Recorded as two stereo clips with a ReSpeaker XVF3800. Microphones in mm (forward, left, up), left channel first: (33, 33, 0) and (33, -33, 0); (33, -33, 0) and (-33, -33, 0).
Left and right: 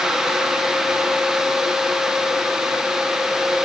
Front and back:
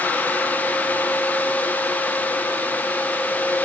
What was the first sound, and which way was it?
Only background noise.